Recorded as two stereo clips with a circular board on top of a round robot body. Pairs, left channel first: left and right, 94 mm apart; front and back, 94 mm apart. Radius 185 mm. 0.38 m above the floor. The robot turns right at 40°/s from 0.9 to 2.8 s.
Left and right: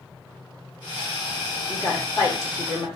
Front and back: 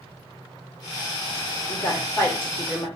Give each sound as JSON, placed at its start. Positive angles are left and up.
{"t": 1.7, "sound": "a woman speaking", "azimuth_deg": 35, "distance_m": 1.7}